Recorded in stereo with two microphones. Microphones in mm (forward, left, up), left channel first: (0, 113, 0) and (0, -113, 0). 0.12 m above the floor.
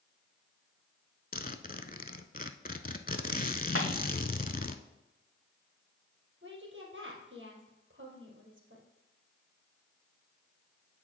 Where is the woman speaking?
60° right (ahead or behind), 2.5 m.